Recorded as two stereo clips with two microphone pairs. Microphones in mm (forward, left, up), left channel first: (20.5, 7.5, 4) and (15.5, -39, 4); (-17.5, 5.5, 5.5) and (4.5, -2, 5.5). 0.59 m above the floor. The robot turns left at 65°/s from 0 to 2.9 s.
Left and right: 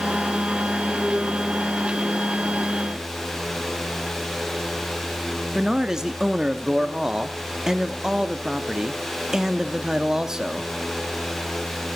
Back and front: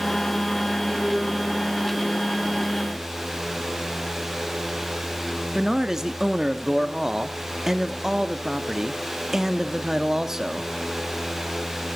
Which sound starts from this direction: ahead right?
A man speaking, at 5.5 s.